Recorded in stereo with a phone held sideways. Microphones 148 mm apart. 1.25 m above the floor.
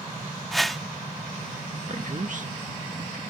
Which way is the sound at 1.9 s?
60° right (ahead or behind).